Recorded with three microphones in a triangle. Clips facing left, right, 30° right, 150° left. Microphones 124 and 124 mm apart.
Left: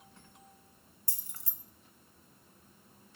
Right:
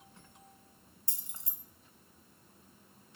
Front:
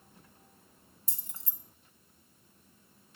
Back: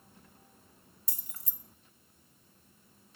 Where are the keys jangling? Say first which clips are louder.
Even, front 2 dB; 50° right, 0.6 m.